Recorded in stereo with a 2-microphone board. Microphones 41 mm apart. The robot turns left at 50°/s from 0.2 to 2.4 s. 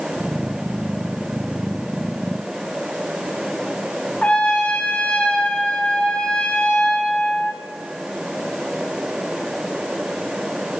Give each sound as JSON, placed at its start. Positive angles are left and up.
{"t": 4.2, "sound": "a trumpet", "side_deg": 30, "distance_m": 0.9}